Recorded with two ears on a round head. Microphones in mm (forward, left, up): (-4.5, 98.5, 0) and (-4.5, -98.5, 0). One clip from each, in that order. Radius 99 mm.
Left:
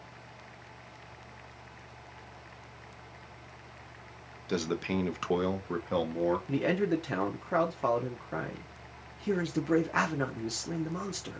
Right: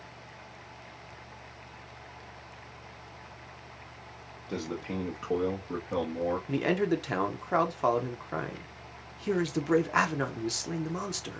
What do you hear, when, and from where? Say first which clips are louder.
4.5 s a man speaking: left 4 dB; 60° left (ahead or behind), 1.0 m; by 6.4 s 45° left (ahead or behind), 1.1 m
6.5 s a man speaking: right 1 dB; 20° right (ahead or behind), 0.6 m